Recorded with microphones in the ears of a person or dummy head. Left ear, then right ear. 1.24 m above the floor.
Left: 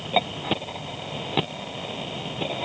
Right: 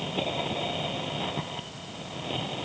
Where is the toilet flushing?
No toilet flushing in this recording.